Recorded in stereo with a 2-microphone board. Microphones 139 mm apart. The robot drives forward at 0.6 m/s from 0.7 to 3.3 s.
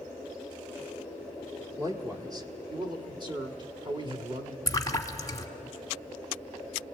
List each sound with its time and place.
1.8 s a man speaking: 25° right (ahead or behind), 1.7 m; by 4.6 s 35° right (ahead or behind), 1.3 m
4.7 s a splash: 25° left (ahead or behind), 1.0 m